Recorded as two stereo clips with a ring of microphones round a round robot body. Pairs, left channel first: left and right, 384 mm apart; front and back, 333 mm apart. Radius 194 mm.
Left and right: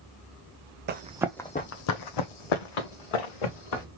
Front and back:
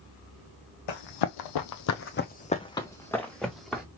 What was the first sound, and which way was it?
Running footsteps, 25° right.